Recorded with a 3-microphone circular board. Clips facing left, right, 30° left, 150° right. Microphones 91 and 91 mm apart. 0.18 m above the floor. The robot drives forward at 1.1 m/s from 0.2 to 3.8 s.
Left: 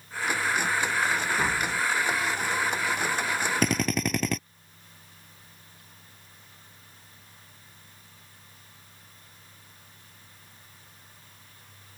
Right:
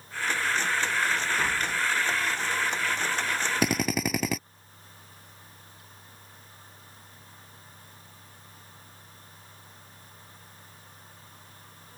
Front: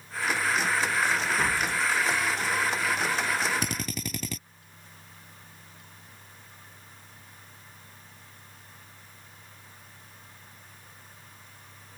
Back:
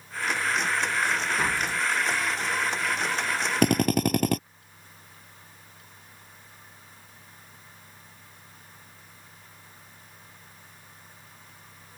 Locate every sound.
1.4 s tapping: 135° left; by 1.8 s 160° left
3.6 s a drill: 175° right